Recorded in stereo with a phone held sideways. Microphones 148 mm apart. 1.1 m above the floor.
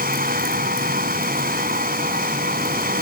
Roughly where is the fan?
Right.